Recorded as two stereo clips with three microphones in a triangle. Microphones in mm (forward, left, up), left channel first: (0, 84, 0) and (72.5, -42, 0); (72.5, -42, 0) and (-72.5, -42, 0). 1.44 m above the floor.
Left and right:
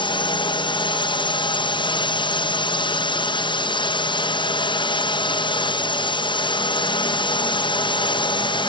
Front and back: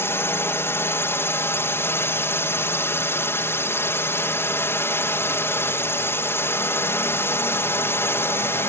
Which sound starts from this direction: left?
A drone, at 0.0 s.